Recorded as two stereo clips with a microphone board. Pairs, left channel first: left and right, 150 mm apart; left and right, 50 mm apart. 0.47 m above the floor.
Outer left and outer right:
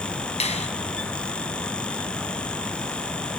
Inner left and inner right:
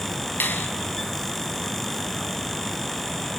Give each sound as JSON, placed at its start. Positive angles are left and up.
{"t": 0.4, "sound": "a finger snap", "side_deg": 45, "distance_m": 4.0}